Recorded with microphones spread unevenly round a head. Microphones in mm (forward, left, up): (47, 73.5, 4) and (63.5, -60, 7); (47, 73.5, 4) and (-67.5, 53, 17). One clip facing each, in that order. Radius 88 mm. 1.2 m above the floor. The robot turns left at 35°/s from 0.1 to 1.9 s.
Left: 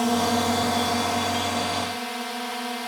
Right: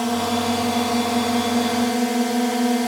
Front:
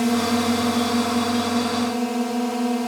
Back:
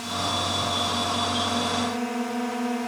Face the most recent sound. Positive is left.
turn(degrees=-55)